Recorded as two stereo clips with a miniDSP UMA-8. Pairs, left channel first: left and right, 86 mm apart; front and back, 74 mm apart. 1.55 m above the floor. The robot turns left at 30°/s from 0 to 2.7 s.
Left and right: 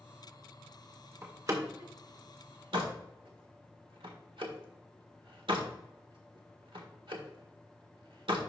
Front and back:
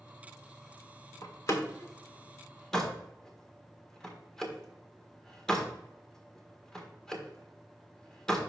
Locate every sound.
1.2 s a door slam: 35° right, 1.5 m; by 8.4 s 80° right, 1.5 m